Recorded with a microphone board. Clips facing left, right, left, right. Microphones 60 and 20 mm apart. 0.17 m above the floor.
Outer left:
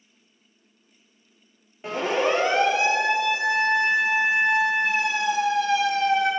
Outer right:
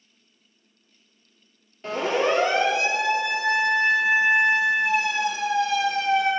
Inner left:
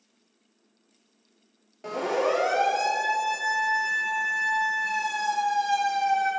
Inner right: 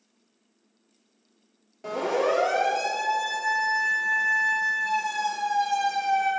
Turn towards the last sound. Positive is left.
turn(degrees=25)  # may be behind; listen again after turning